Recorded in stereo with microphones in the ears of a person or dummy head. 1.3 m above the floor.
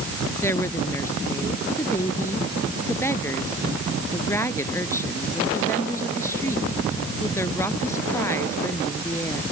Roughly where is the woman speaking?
Centre.